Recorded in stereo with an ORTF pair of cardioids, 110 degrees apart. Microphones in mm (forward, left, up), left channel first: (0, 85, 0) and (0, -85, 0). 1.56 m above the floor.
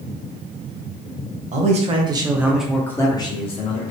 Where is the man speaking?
45° right, 0.9 m; by 3.9 s 45° left, 1.1 m.